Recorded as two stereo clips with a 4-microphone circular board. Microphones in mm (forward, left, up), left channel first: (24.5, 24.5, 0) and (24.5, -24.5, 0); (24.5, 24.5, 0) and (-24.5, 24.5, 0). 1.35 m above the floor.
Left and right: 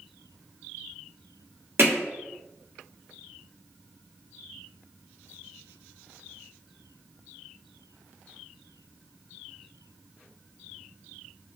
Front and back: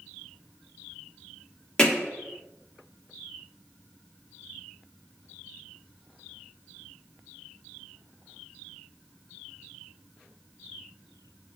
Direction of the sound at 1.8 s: 70° right.